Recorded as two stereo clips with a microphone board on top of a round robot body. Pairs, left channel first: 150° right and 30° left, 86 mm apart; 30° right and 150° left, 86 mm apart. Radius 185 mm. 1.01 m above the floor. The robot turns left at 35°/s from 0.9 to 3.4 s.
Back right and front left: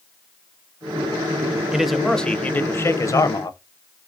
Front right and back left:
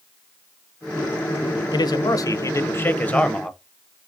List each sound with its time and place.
1.7 s a man speaking: 50° right, 0.6 m; by 3.6 s 110° right, 0.6 m